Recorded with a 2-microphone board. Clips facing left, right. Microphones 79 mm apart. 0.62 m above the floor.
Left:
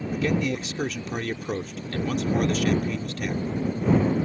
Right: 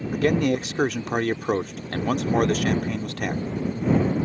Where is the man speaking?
60° right (ahead or behind).